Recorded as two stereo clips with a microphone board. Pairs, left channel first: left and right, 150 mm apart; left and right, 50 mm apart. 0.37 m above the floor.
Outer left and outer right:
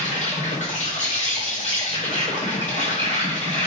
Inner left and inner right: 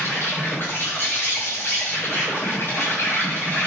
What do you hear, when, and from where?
0.0 s an insect: 50° left (ahead or behind), 1.3 m